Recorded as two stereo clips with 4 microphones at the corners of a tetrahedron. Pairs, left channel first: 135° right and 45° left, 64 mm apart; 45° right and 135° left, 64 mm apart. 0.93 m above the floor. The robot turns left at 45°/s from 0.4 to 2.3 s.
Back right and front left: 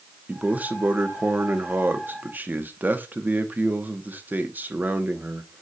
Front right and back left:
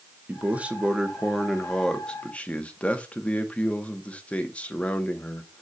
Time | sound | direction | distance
0.3 | a man speaking | 95° left | 0.9 m